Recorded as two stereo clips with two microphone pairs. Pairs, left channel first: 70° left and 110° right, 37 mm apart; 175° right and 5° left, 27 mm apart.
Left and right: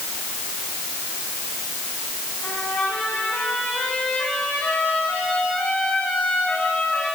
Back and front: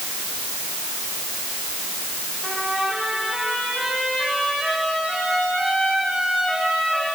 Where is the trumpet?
85° left, 10 m.